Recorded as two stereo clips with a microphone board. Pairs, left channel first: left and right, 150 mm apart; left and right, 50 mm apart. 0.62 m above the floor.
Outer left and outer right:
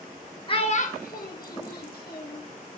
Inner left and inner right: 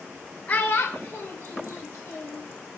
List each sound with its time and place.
0.5 s a child speaking: 35° left (ahead or behind), 0.5 m; by 2.4 s 80° left, 1.6 m